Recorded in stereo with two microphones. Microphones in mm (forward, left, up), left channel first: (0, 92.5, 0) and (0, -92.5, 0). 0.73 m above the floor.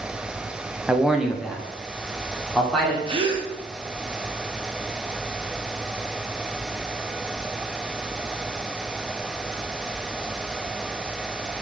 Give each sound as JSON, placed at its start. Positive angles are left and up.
{"t": 0.9, "sound": "a man speaking", "side_deg": -5, "distance_m": 0.5}
{"t": 3.1, "sound": "a gasp", "side_deg": -30, "distance_m": 0.6}